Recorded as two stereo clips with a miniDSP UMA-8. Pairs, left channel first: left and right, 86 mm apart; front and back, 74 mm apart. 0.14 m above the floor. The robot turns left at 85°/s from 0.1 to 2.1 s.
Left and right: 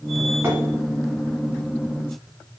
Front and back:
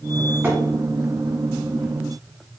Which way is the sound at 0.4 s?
140° right.